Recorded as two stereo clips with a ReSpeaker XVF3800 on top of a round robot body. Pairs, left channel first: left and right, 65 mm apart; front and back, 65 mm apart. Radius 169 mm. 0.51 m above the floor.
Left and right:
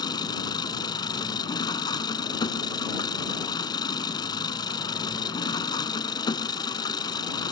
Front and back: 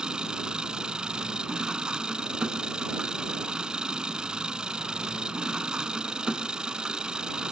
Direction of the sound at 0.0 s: 100° left.